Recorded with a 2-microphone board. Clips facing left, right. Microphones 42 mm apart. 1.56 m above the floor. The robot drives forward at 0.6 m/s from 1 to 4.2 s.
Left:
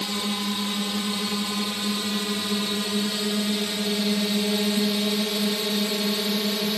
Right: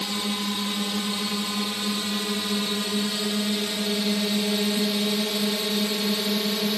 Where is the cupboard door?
No cupboard door in this recording.